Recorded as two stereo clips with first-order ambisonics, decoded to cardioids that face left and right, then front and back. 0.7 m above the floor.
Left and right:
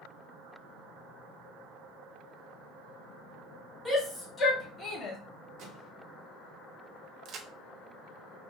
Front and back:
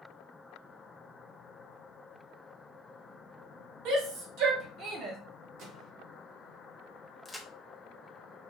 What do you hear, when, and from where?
3.9 s a shout: 175° left, 1.9 m; by 5.2 s 145° left, 1.6 m
5.6 s a microwave: 135° right, 1.0 m
7.2 s a crack: 85° right, 0.6 m